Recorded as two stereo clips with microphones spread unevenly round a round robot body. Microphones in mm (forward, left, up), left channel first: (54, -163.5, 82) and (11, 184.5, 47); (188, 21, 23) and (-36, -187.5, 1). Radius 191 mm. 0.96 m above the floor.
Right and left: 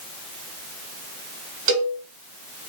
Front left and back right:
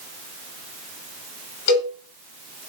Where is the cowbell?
40° left, 1.9 m.